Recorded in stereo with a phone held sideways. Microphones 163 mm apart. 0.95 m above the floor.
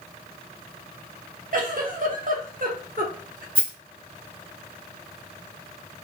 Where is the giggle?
55° right (ahead or behind), 0.8 m.